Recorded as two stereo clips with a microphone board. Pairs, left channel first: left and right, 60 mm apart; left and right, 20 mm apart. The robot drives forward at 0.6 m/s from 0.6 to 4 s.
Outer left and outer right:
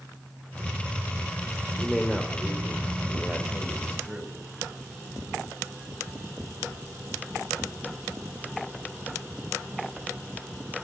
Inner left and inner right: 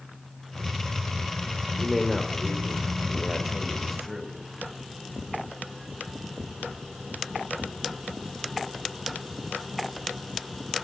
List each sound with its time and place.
1.8 s a man speaking: 15° left (ahead or behind), 1.9 m; by 4.3 s 10° left (ahead or behind), 3 m